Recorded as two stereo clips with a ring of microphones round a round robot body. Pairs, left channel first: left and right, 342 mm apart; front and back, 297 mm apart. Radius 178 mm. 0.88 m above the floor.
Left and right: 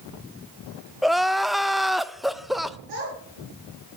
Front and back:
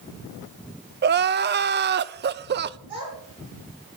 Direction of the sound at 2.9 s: 110° right.